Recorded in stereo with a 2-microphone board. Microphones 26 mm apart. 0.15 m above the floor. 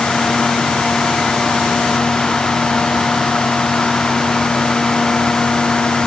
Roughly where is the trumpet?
No trumpet in this recording.